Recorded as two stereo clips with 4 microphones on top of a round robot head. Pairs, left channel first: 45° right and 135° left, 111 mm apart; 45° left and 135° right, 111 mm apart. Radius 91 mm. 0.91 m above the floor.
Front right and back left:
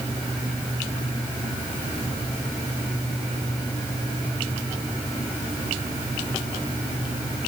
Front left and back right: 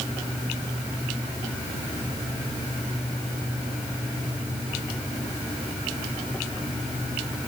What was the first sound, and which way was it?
Only background noise.